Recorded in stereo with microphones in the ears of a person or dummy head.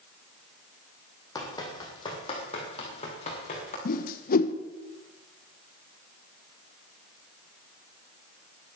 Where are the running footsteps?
20° left (ahead or behind), 3.5 m; by 3.8 s 40° left (ahead or behind), 6 m.